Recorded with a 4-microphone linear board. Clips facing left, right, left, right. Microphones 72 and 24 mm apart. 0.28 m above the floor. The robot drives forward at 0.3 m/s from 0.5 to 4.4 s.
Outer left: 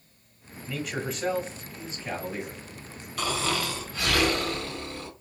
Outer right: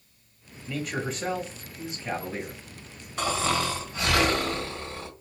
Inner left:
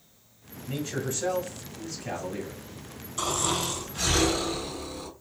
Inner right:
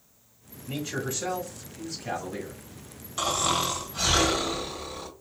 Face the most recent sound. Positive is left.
turn(degrees=-25)  # may be behind; listen again after turning